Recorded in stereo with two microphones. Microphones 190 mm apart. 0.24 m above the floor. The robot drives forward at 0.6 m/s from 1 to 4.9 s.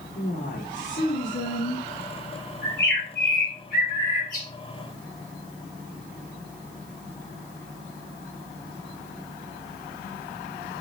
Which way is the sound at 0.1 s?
70° left (ahead or behind).